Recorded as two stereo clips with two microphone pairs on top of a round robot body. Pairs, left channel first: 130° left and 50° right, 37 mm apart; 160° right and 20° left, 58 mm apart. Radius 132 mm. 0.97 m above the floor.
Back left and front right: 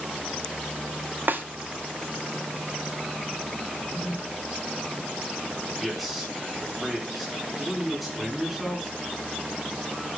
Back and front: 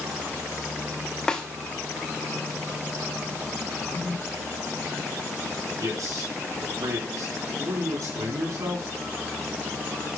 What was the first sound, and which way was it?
A snare drum, 85° right.